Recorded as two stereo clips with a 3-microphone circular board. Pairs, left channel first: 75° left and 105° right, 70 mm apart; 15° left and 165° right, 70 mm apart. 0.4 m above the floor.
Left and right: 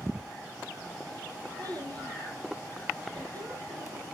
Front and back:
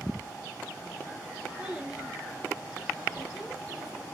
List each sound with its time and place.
1.6 s a child speaking: 85° right, 5 m; by 4.0 s 70° right, 2 m